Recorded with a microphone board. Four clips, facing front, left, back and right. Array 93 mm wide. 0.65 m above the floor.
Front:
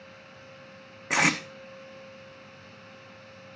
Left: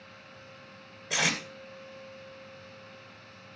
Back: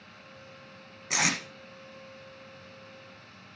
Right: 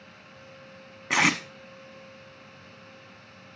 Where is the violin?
I don't hear a violin.